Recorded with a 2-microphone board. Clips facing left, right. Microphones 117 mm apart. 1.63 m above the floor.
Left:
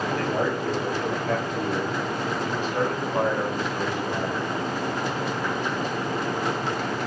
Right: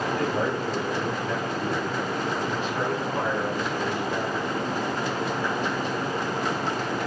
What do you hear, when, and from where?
0.1 s a man speaking: 70° left (ahead or behind), 4 m; by 4.4 s 20° left (ahead or behind), 3.5 m